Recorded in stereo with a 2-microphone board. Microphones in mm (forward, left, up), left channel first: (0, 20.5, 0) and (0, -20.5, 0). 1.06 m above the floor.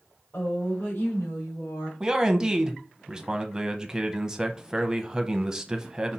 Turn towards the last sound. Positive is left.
turn(degrees=-15)  # may be behind; listen again after turning